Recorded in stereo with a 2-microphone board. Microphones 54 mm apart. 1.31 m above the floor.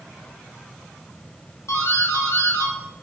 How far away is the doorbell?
About 6.5 m.